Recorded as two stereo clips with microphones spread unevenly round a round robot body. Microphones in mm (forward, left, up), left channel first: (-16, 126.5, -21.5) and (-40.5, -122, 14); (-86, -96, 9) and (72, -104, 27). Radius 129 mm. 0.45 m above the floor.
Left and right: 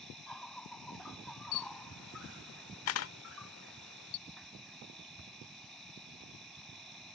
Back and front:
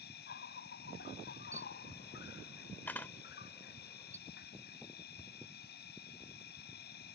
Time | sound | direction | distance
0.0 | an insect | 175° left | ?
1.5 | a camera shutter | 100° left | ?
4.3 | ticking | 150° left | ?